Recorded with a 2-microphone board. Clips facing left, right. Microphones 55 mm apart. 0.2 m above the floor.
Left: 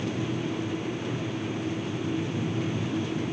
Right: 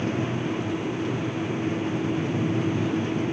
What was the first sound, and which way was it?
Only background noise.